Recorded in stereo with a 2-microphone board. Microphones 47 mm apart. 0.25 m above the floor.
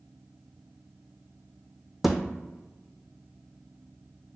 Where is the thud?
5° right (ahead or behind), 0.5 m.